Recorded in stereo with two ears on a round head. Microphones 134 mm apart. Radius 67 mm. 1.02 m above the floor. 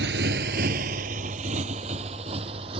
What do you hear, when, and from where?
0.0 s a motorcycle: 80° right; by 2.8 s 35° right (ahead or behind)